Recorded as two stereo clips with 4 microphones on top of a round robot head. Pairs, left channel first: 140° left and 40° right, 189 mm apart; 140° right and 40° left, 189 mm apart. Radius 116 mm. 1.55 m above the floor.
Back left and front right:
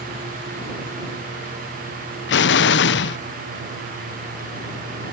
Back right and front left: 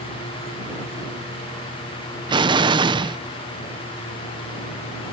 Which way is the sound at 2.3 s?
110° left.